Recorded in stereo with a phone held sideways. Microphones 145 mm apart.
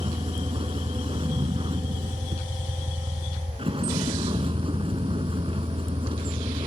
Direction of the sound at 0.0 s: 40° right (ahead or behind).